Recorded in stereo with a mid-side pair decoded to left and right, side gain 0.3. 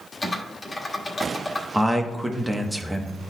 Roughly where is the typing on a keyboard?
Ahead left.